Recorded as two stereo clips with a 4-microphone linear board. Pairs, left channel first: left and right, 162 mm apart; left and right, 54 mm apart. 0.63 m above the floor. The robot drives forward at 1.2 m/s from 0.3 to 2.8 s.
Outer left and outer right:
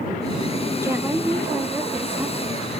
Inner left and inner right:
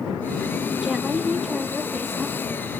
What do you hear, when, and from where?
0.8 s a woman speaking: 15° right (ahead or behind), 1.1 m; by 2.7 s 10° right (ahead or behind), 2 m